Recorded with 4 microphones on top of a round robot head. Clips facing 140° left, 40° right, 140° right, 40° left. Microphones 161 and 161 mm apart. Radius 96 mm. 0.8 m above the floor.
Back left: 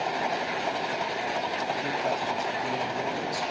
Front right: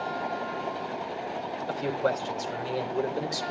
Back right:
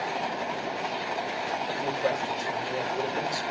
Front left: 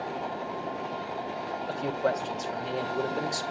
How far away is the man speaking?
About 3 m.